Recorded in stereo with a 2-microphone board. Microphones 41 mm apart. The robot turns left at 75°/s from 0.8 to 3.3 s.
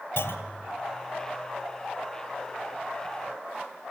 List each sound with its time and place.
0.2 s a clunk: 70° left (ahead or behind), 1.4 m